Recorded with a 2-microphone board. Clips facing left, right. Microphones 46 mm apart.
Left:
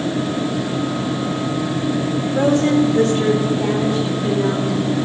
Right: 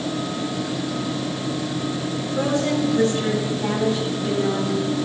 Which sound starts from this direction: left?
A woman speaking, at 2.4 s.